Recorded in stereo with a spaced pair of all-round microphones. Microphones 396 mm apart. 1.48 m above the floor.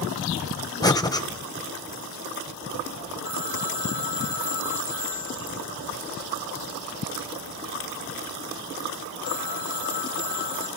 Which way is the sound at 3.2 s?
65° right (ahead or behind).